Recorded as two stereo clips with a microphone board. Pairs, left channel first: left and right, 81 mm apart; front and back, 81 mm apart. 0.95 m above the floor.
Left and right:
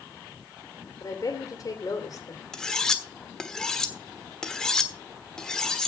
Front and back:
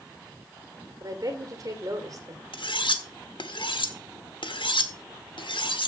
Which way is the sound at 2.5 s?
10° left.